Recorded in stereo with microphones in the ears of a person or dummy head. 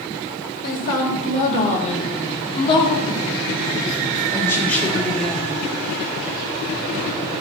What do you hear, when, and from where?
0.6 s a woman speaking: 50° left (ahead or behind), 3.5 m; by 5.6 s centre (ahead or behind), 3.5 m